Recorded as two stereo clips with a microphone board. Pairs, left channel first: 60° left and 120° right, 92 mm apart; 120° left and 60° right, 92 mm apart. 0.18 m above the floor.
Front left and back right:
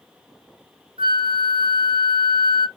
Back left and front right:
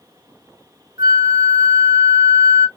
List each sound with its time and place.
1.0 s a flute: 110° right, 1.2 m